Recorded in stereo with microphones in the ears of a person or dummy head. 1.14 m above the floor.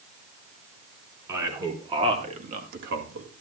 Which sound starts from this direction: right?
A man speaking, at 1.3 s.